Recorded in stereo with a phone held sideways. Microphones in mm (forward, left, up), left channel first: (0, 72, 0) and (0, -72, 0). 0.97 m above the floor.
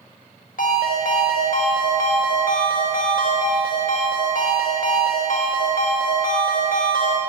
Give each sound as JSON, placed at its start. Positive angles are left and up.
{"t": 0.6, "sound": "a ringtone", "side_deg": 75, "distance_m": 1.0}